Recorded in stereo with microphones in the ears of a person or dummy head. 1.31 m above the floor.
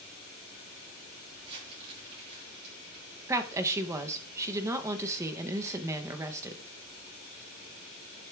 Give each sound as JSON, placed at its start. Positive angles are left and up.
{"t": 1.4, "sound": "crumpling", "side_deg": -35, "distance_m": 6.5}
{"t": 3.3, "sound": "a woman speaking", "side_deg": -15, "distance_m": 0.9}